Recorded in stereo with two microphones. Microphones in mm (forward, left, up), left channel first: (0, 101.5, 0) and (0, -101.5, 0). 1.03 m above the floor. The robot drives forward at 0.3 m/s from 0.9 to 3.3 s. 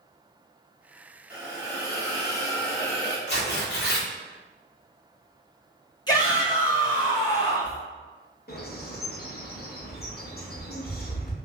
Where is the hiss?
20° right (ahead or behind), 0.8 m; by 3.2 s 10° right (ahead or behind), 1.2 m.